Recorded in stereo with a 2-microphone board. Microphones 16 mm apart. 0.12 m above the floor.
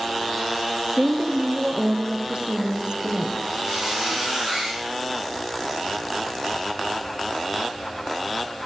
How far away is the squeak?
About 6 m.